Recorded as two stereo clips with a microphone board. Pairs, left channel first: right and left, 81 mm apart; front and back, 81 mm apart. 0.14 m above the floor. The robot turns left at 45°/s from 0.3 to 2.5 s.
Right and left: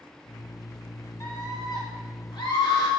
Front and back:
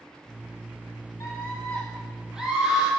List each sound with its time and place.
1.2 s a scream: 45° right, 3.5 m; by 2.9 s 105° right, 3.5 m